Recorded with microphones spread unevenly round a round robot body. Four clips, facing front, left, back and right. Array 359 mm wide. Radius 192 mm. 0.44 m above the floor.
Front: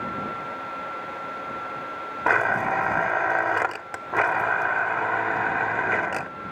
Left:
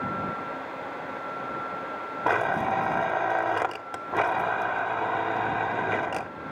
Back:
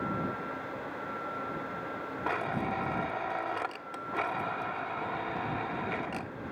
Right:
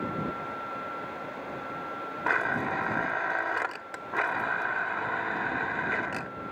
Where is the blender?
40° left.